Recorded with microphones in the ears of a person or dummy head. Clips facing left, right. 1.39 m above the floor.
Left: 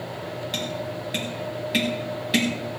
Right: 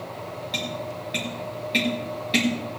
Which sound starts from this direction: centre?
Tapping, at 0.5 s.